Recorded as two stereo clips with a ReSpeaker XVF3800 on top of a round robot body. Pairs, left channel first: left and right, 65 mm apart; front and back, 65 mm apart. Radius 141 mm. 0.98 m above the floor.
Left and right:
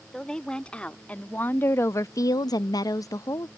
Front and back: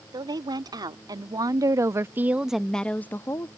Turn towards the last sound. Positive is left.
turn(degrees=50)